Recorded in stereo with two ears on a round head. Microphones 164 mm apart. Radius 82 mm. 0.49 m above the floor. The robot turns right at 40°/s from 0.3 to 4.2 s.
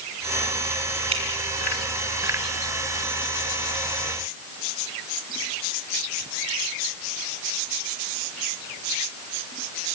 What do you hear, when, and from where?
1.1 s dripping: 30° right (ahead or behind), 4.5 m; by 1.2 s 25° right (ahead or behind), 4.5 m